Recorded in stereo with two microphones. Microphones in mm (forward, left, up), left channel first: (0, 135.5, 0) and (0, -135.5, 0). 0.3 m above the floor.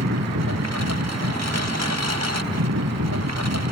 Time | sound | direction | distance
0.0 | a lawn mower | 70° right (ahead or behind) | ?